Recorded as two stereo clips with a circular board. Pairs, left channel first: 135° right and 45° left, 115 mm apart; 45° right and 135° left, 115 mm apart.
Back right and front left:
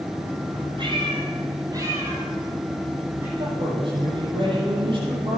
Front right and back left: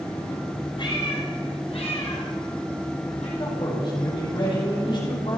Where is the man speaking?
Straight ahead, 6.5 m.